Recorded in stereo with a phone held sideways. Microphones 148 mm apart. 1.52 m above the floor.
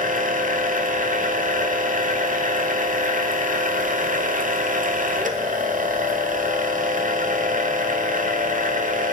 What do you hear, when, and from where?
0.0 s a machine running: 65° right (ahead or behind), 0.8 m